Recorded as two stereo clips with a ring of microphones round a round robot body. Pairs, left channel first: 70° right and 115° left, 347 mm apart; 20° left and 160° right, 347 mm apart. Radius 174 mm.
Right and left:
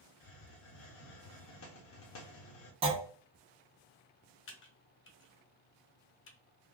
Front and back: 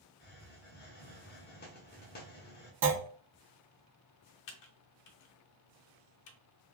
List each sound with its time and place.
0.2 s a hiss: 30° right, 0.7 m
2.8 s a clunk: 165° left, 1.0 m
4.5 s typing on a keyboard: 10° right, 0.7 m